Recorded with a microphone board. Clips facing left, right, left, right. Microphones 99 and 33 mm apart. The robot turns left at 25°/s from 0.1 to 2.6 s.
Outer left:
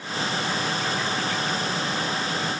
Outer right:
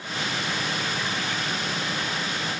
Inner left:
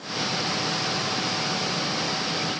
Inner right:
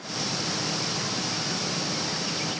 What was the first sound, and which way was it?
Only background noise.